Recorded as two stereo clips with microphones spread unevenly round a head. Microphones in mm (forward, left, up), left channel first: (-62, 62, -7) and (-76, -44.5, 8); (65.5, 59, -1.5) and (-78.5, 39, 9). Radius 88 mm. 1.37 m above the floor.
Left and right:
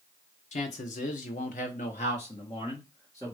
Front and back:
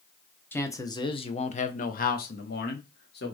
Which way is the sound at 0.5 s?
85° left.